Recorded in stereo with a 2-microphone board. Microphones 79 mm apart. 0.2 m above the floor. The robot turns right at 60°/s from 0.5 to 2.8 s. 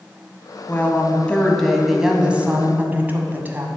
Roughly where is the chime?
No chime in this recording.